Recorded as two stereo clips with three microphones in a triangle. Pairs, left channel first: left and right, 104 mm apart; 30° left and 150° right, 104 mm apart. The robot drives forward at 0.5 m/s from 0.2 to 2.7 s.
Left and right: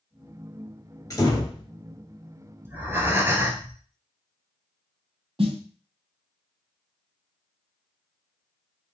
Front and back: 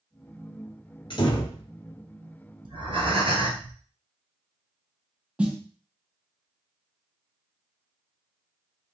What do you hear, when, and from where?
1.1 s a door slam: 45° left, 1.2 m; by 1.6 s 60° left, 1.1 m
2.6 s breathing: 155° right, 1.0 m
5.4 s a snare drum: 70° right, 0.9 m